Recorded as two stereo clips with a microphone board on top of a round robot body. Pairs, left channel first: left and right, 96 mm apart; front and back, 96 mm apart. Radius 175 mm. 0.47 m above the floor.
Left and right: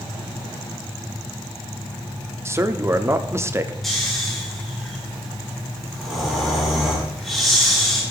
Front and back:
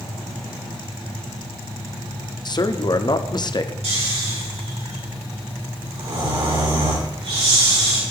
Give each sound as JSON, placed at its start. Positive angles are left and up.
{"t": 2.5, "sound": "a man speaking", "azimuth_deg": -30, "distance_m": 1.2}
{"t": 3.8, "sound": "snoring", "azimuth_deg": 180, "distance_m": 5.5}